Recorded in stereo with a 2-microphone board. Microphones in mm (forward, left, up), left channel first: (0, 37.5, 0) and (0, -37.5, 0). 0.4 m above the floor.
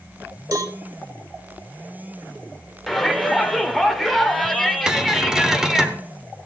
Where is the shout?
5° left (ahead or behind), 1.0 m.